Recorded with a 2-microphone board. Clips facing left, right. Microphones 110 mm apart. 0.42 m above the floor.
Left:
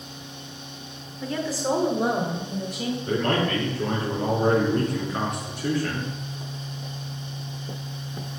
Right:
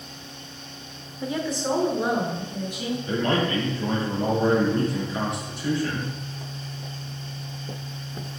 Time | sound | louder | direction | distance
1.2 | a woman speaking | even | 15° right (ahead or behind) | 1.0 m
3.1 | a man speaking | even | 45° left (ahead or behind) | 4 m